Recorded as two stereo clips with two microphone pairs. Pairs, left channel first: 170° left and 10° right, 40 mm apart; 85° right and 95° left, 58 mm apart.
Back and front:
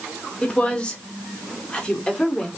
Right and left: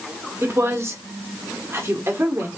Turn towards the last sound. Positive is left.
turn(degrees=110)